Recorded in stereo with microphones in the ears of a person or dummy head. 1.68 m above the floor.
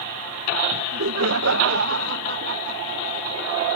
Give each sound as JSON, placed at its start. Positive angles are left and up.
{"t": 0.7, "sound": "laughter", "side_deg": -60}